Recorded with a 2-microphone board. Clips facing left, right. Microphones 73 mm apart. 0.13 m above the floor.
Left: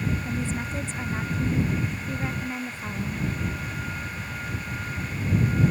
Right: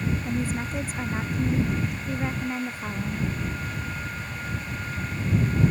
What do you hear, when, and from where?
0.2 s a woman speaking: 10° right (ahead or behind)